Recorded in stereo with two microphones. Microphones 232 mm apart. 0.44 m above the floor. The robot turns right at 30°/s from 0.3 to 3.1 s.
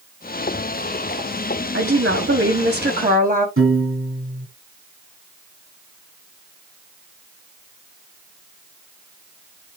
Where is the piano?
65° right (ahead or behind), 3 m.